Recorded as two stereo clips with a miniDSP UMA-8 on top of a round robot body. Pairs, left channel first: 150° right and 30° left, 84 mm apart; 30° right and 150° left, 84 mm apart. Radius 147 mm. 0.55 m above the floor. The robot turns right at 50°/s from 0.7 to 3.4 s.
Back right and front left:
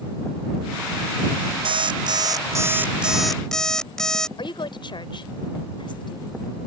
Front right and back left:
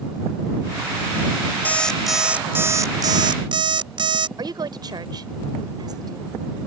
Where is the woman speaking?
175° right.